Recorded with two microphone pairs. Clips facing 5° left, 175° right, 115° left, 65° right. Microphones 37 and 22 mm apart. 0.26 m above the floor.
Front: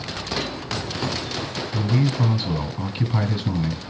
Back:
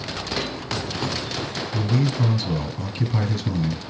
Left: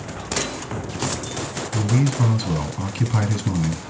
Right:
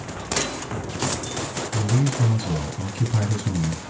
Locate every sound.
1.7 s a man speaking: 70° left, 2.0 m